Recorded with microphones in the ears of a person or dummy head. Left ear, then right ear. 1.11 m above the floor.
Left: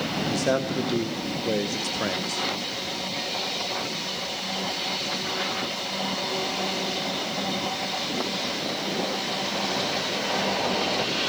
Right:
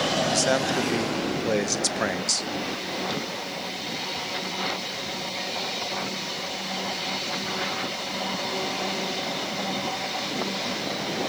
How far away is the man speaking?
About 0.7 m.